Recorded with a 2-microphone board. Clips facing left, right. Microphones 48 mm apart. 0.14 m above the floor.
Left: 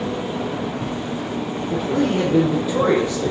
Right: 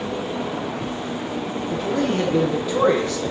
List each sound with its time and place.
1.7 s a man speaking: 10° left (ahead or behind), 6.5 m; by 3.3 s 15° left (ahead or behind), 8 m